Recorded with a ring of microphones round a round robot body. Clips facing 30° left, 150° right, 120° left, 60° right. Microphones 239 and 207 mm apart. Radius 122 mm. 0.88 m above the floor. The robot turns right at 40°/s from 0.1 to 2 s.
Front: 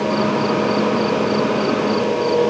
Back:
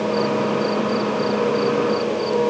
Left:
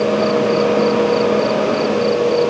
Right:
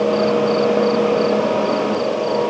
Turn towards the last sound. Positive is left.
No sound to turn to.